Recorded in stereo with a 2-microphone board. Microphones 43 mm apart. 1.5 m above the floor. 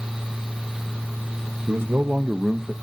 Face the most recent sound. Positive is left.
turn(degrees=15)  # may be behind; listen again after turning